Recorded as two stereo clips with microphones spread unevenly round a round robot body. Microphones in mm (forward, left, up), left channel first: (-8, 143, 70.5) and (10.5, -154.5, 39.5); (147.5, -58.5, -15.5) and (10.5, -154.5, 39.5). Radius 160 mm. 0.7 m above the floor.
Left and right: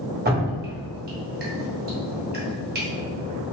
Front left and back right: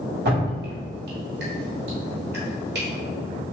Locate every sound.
0.2 s dripping: 135° right, 1.3 m